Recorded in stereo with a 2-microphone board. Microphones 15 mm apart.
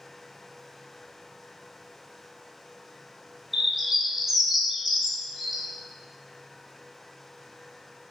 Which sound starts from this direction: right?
A bird, at 3.5 s.